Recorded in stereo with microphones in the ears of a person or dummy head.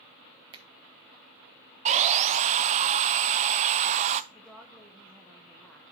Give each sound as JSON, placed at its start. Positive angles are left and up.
{"t": 0.5, "sound": "a finger snap", "side_deg": -20, "distance_m": 1.2}
{"t": 1.9, "sound": "sawing", "side_deg": -30, "distance_m": 0.6}
{"t": 4.3, "sound": "a woman speaking", "side_deg": 0, "distance_m": 1.1}